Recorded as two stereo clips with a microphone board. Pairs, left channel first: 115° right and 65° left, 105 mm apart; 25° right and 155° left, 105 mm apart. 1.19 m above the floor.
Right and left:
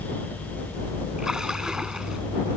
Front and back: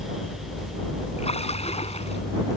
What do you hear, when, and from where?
1.2 s a splash: 15° right